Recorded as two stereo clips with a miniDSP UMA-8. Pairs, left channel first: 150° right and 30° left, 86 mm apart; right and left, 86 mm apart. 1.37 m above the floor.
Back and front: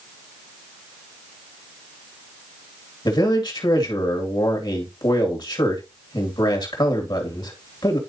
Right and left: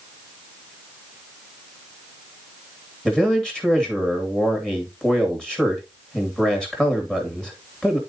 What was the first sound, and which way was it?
A man speaking, 170° right.